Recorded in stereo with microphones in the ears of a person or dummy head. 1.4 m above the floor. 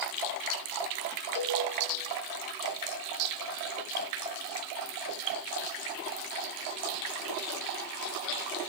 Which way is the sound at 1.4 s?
70° left (ahead or behind).